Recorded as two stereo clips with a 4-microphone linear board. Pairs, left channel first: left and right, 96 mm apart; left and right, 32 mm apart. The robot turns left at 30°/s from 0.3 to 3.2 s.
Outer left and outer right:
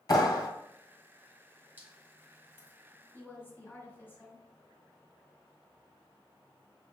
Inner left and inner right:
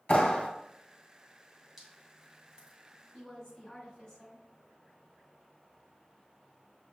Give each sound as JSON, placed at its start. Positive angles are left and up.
{"t": 0.1, "sound": "a clap", "side_deg": 45, "distance_m": 1.6}
{"t": 1.8, "sound": "dripping", "side_deg": -15, "distance_m": 1.6}
{"t": 3.1, "sound": "a woman speaking", "side_deg": 20, "distance_m": 1.5}